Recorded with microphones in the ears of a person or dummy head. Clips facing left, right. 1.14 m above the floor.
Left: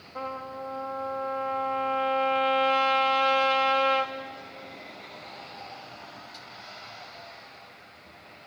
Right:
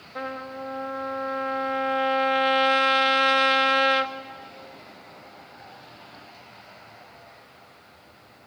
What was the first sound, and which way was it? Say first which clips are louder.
A trumpet: right 2 dB; 10° right (ahead or behind).